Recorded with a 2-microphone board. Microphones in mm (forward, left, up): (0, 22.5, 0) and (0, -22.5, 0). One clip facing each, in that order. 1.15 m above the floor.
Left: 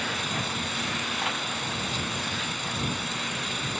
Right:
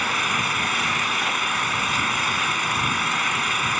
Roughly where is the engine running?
Right.